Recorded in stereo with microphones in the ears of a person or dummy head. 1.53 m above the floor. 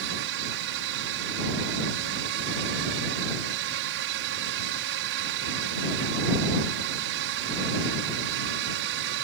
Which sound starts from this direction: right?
A drone, at 0.0 s.